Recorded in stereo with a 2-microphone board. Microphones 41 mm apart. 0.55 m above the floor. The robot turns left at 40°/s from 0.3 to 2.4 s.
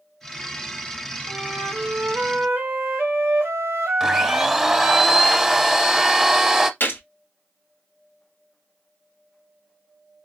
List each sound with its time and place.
1.3 s a flute: 65° right, 1.5 m; by 5.0 s 110° right, 1.5 m
4.0 s a blender: 10° right (ahead or behind), 0.6 m
6.8 s a gunshot: 50° left (ahead or behind), 1.3 m